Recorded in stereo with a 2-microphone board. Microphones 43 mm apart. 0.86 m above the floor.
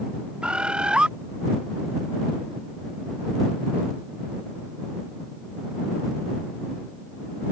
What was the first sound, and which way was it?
A bird, 20° right (ahead or behind).